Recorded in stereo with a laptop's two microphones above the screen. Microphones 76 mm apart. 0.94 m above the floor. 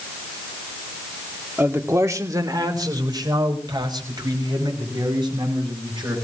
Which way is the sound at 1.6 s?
30° right (ahead or behind).